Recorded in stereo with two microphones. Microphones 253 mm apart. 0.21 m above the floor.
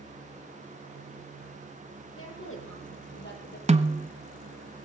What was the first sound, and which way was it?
A woman speaking, 60° left (ahead or behind).